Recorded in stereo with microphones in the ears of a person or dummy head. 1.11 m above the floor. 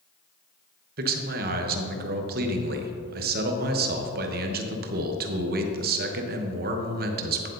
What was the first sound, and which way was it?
A man speaking, 50° right (ahead or behind).